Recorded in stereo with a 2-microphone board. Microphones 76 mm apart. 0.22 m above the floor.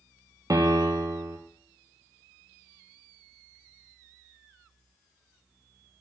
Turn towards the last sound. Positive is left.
turn(degrees=-50)  # may be behind; listen again after turning